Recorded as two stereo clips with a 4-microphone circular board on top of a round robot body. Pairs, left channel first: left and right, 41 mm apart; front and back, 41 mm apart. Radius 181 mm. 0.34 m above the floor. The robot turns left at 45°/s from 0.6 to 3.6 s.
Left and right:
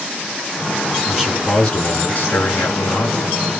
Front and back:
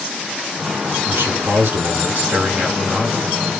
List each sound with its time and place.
1.1 s a man speaking: 170° right, 6.5 m; by 3.3 s 90° left, 6.5 m